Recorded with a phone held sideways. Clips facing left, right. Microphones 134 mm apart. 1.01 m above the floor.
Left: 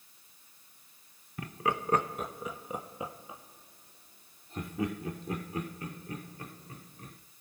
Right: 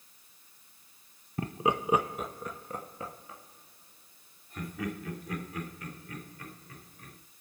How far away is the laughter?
About 0.6 m.